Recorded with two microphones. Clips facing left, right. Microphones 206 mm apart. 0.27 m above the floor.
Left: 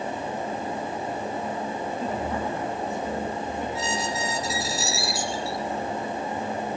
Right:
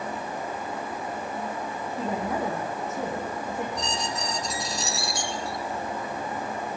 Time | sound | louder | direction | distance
2.0 | a woman speaking | right 3 dB | 80° right | 9.5 m
3.8 | a squeak | left 2 dB | 5° left (ahead or behind) | 1.7 m